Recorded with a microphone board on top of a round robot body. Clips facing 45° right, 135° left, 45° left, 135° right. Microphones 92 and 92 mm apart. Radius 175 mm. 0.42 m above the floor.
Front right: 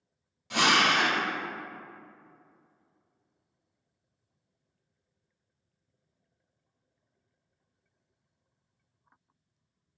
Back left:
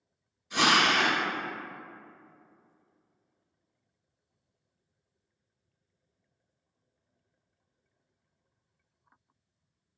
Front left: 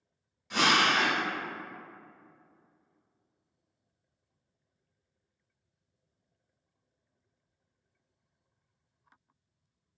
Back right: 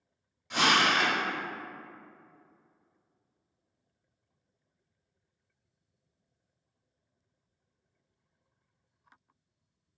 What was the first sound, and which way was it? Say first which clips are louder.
A drill: even, even; 45° right.